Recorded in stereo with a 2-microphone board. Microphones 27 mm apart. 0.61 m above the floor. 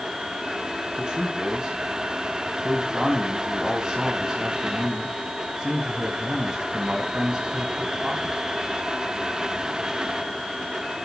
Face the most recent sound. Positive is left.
turn(degrees=-35)  # may be behind; listen again after turning